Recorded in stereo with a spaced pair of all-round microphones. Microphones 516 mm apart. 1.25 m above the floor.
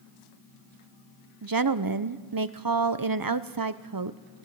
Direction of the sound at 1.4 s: 40° right (ahead or behind).